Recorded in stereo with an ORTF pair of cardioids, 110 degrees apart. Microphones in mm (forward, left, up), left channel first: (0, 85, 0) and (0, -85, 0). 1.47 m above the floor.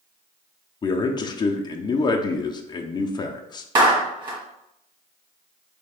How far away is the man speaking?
About 0.5 m.